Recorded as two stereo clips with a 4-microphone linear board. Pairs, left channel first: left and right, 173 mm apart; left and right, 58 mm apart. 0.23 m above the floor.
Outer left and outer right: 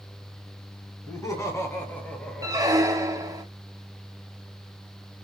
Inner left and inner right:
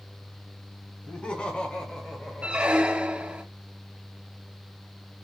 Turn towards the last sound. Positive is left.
turn(degrees=-20)  # may be behind; listen again after turning